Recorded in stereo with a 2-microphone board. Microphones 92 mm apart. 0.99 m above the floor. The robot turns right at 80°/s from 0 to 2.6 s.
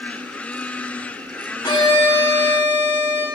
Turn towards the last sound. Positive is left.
turn(degrees=130)